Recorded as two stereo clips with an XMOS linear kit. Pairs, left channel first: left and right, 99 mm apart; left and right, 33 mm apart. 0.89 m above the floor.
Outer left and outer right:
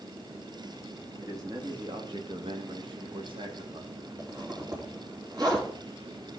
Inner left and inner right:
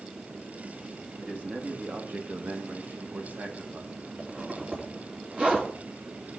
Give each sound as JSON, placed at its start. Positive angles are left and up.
{"t": 1.2, "sound": "a man speaking", "side_deg": -35, "distance_m": 2.0}
{"t": 4.2, "sound": "a zipper", "side_deg": -45, "distance_m": 2.5}